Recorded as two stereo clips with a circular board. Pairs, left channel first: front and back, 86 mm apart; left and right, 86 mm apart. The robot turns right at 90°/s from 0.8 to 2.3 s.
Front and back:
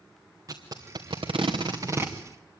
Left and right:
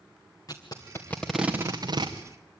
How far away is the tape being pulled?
About 2.5 m.